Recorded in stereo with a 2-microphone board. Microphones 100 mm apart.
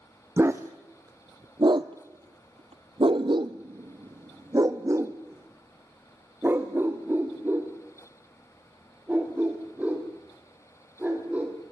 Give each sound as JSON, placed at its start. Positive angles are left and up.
{"t": 0.4, "sound": "a dog barking", "side_deg": -25, "distance_m": 1.7}